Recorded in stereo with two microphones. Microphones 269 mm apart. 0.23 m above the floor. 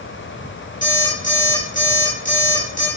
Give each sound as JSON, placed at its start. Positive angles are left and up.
{"t": 0.8, "sound": "an alarm clock", "side_deg": 30, "distance_m": 1.8}